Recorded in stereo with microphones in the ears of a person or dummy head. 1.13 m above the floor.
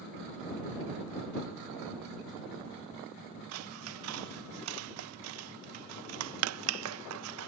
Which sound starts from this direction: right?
Scissors, at 3.5 s.